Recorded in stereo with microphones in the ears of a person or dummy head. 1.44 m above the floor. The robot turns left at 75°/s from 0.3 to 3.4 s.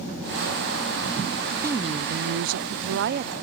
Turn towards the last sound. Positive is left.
turn(degrees=-150)